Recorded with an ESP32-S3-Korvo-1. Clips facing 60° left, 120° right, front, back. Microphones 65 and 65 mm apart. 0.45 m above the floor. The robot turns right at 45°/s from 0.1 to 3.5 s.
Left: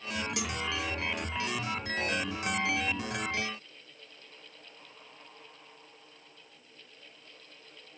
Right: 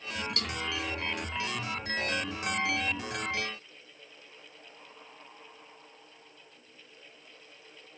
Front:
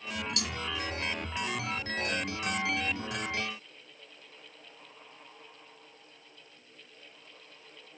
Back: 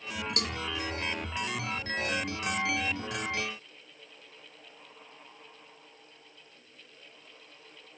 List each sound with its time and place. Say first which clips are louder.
0.4 s a cowbell: left 1 dB, back 2 dB; 140° left; by 0.6 s 145° left